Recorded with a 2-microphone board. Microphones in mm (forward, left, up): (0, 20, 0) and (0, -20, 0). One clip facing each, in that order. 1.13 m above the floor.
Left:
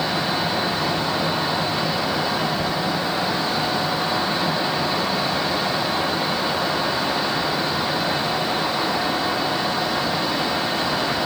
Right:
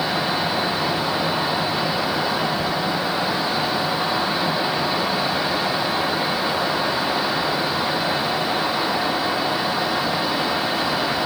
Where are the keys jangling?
I don't hear keys jangling.